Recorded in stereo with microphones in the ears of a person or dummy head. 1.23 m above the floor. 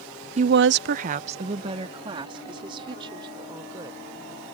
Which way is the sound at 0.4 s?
35° right (ahead or behind).